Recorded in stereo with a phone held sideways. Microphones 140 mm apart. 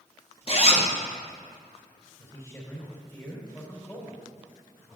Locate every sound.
0.5 s a zipper: 45° left (ahead or behind), 1.0 m
2.2 s a man speaking: 15° left (ahead or behind), 4 m